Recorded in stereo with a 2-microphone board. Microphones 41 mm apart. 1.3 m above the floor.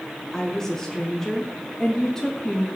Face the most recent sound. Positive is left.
turn(degrees=10)  # may be behind; listen again after turning